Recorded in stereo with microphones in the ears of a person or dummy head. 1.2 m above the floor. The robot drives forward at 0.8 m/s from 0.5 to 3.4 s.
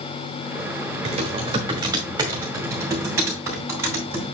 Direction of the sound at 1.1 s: 40° right (ahead or behind).